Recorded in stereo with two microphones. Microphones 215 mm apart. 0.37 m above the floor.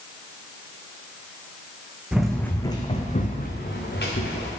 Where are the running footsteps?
5° right (ahead or behind), 1.2 m; by 4.5 s 65° left (ahead or behind), 2 m.